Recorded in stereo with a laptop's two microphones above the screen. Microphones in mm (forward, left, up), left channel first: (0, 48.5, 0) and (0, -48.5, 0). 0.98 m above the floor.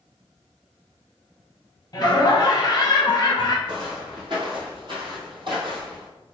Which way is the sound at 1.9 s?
35° left (ahead or behind).